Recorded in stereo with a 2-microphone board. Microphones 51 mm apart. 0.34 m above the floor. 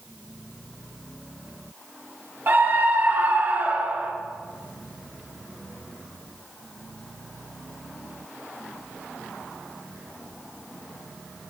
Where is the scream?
45° right (ahead or behind), 1.3 m; by 4.1 s 30° right (ahead or behind), 1.6 m.